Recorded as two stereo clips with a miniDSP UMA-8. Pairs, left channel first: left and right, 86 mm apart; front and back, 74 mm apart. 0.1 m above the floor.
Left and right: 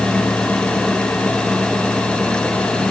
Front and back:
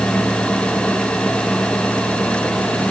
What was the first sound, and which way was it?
Only background noise.